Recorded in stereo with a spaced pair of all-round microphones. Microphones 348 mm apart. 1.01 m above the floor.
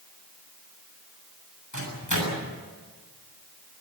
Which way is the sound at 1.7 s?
60° left (ahead or behind).